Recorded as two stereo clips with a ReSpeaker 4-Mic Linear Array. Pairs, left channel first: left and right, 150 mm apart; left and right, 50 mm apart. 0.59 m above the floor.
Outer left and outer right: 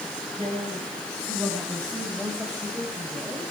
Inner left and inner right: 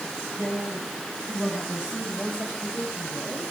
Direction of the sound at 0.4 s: 15° right (ahead or behind).